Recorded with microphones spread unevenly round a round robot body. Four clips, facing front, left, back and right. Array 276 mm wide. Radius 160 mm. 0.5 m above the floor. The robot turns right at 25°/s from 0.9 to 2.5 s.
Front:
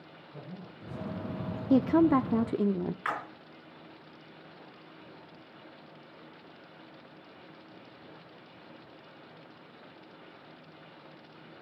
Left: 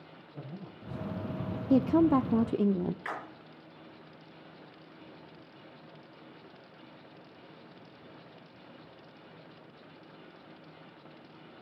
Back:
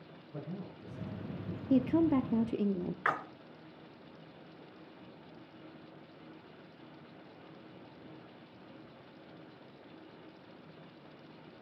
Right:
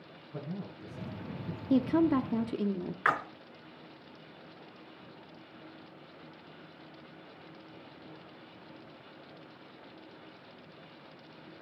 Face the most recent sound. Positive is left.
turn(degrees=-90)